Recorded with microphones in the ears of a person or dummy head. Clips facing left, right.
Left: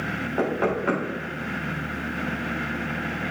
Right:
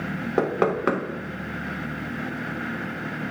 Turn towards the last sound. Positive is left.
turn(degrees=-65)  # may be behind; listen again after turning